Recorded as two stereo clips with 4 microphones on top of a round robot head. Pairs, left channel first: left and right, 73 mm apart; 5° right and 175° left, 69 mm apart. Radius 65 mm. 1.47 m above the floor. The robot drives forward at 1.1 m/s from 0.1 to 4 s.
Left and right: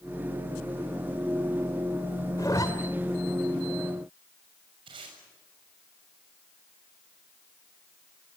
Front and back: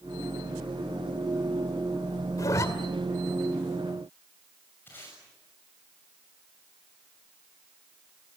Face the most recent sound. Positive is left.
turn(degrees=-75)